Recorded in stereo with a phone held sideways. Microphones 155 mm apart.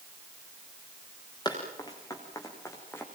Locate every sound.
1.4 s running footsteps: 25° left (ahead or behind), 6.5 m; by 3.0 s 15° left (ahead or behind), 5.5 m